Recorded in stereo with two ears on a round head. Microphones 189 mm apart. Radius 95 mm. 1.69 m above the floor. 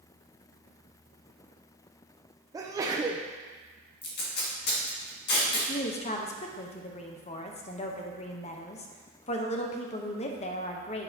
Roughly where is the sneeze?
Centre.